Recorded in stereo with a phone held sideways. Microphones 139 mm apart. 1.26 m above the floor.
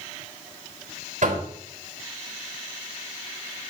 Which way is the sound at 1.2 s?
60° right (ahead or behind).